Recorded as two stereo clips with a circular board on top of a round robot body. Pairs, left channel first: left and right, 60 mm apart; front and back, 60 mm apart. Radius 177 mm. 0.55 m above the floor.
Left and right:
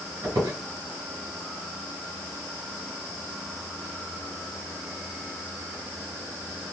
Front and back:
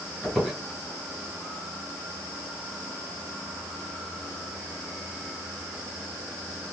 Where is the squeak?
85° right, 1.9 m.